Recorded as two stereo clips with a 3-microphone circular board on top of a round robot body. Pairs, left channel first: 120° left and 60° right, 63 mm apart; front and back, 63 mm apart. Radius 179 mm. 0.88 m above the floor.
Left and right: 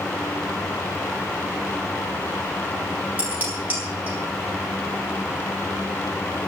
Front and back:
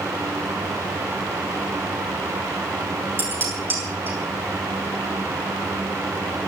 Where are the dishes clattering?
125° right, 7.5 m.